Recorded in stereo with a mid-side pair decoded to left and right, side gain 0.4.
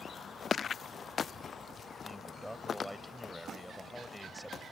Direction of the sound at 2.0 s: Straight ahead.